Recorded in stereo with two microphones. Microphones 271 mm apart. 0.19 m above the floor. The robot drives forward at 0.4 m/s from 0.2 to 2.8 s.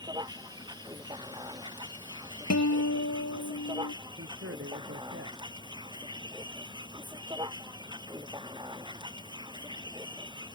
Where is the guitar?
70° left (ahead or behind).